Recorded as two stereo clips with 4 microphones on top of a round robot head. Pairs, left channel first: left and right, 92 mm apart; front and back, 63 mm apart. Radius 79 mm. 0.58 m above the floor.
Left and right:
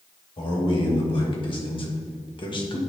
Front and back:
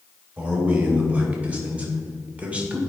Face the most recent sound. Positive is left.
turn(degrees=110)